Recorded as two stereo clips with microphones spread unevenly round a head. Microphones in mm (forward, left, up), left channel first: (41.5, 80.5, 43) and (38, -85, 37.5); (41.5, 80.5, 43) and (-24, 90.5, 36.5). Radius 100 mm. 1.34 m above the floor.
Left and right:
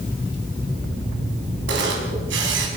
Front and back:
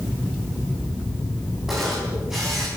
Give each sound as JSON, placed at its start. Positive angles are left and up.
{"t": 1.7, "sound": "a camera shutter", "azimuth_deg": -100, "distance_m": 5.0}